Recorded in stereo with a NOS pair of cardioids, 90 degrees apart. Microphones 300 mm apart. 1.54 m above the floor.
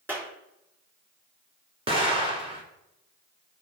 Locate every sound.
0.1 s a clap: 5° right, 3.5 m
1.9 s an explosion: 20° right, 2.5 m